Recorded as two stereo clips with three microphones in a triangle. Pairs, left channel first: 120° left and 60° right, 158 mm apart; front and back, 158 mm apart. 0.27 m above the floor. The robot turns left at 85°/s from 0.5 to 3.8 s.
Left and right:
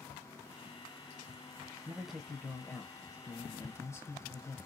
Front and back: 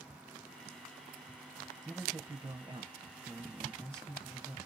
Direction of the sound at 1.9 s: 115° right.